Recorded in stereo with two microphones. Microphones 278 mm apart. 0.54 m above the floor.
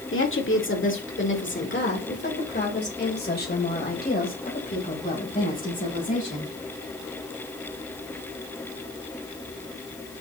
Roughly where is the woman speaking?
Left.